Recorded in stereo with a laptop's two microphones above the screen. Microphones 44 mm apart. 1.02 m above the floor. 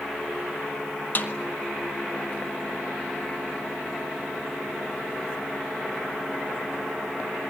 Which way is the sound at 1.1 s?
45° left (ahead or behind).